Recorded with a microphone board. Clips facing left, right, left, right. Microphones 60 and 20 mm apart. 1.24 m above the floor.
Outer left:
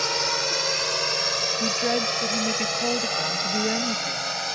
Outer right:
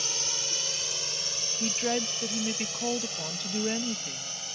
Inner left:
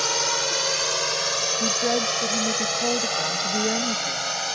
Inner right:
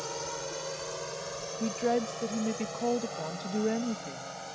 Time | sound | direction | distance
0.0 | a drone | 70° left (ahead or behind) | ?
1.6 | a woman speaking | 15° left (ahead or behind) | ?